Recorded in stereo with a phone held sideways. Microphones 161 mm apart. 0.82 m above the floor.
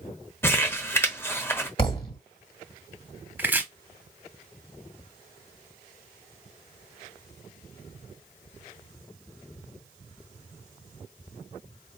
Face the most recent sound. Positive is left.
turn(degrees=-10)  # may be behind; listen again after turning